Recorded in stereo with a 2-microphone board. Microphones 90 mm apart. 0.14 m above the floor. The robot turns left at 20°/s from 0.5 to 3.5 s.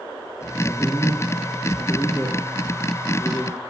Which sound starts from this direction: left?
A man speaking, at 0.6 s.